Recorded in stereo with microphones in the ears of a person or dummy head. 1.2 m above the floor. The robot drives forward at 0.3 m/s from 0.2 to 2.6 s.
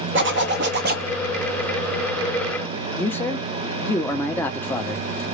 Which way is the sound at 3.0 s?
10° left (ahead or behind).